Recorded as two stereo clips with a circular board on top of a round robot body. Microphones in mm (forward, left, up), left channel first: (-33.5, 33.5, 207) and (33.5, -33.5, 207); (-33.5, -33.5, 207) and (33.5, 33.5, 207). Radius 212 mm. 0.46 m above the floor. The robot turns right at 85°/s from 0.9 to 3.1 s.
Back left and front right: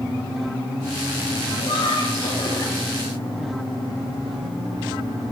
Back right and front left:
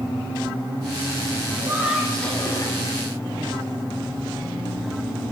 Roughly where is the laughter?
Left.